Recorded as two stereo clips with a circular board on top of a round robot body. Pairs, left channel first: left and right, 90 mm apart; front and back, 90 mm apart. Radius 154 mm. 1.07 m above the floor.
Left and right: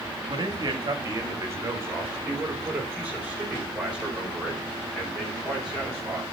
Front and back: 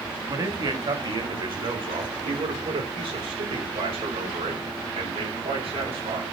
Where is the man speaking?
130° right, 1.9 m; by 6.2 s 175° right, 5.5 m.